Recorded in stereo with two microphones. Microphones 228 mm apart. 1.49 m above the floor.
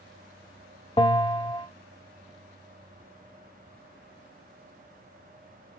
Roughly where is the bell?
Left.